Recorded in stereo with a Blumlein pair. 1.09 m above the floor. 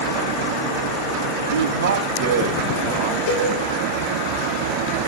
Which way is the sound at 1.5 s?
60° right.